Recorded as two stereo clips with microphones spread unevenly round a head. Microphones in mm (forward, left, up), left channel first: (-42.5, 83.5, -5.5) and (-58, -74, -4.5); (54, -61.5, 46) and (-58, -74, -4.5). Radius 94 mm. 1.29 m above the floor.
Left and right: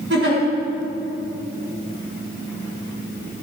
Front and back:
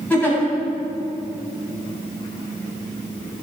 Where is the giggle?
65° right, 6.5 m.